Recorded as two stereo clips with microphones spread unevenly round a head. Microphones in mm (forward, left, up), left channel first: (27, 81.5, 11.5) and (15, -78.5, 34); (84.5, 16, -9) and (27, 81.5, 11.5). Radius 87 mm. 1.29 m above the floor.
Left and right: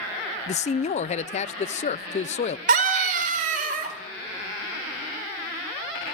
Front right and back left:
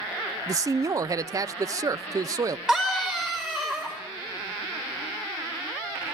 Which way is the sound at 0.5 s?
80° left.